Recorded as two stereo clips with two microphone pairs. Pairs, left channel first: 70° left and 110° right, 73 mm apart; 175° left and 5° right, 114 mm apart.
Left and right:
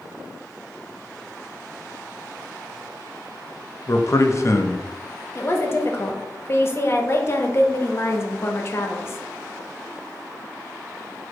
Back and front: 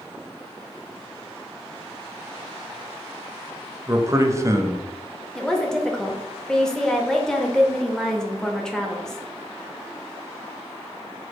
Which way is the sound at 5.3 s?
95° left.